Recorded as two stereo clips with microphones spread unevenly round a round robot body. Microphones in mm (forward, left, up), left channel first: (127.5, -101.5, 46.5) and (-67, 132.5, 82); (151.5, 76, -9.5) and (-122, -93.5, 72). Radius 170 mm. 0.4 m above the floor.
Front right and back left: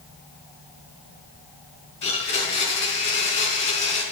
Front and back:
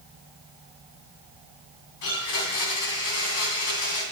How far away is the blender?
About 3 m.